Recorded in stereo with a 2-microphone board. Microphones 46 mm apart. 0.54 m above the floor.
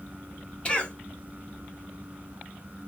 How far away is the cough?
About 1.3 m.